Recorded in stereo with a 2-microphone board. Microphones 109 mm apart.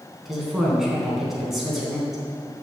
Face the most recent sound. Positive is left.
turn(degrees=0)  # may be behind; listen again after turning